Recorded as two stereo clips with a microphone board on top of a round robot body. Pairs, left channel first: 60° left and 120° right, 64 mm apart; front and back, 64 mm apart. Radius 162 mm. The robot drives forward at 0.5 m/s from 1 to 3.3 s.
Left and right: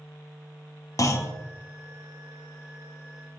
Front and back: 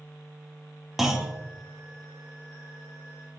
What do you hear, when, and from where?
1.0 s a clunk: 95° left, 0.8 m; by 1.3 s 105° left, 0.9 m